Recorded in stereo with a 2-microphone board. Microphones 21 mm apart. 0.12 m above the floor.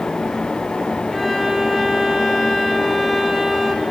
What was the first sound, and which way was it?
A violin, 15° left (ahead or behind).